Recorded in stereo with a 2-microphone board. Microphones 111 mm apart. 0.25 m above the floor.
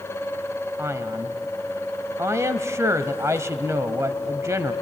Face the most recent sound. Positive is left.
turn(degrees=-25)  # may be behind; listen again after turning